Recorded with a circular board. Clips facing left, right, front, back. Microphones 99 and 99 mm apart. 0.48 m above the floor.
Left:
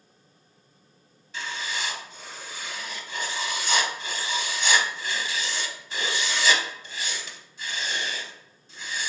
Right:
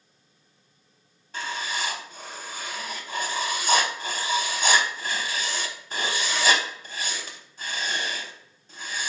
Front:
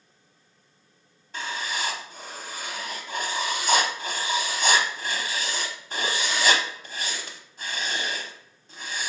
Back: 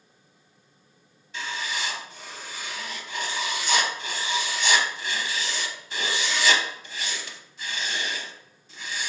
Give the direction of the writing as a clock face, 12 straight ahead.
2 o'clock.